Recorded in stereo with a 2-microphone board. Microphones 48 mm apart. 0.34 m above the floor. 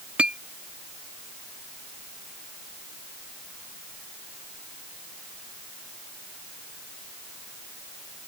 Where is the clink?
25° right (ahead or behind).